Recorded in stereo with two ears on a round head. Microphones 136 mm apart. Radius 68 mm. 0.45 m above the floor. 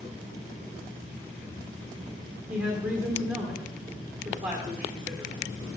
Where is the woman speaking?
5° right (ahead or behind), 1.3 m.